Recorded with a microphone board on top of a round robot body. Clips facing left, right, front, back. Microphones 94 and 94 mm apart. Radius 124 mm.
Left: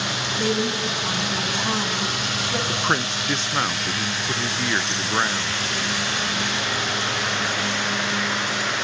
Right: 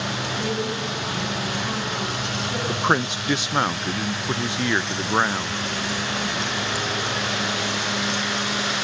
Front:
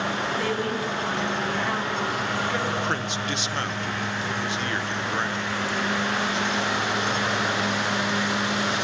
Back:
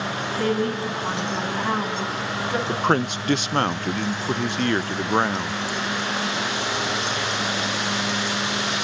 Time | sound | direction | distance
0.4 | a woman speaking | 125° left | 9.5 m
2.7 | a man speaking | 160° right | 0.6 m